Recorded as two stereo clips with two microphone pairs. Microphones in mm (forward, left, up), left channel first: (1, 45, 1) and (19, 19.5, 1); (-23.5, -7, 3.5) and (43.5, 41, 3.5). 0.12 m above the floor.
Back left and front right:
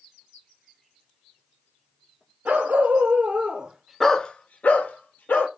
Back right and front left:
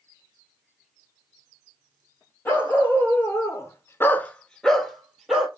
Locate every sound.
2.5 s a dog barking: 80° right, 1.4 m; by 5.5 s 120° left, 1.4 m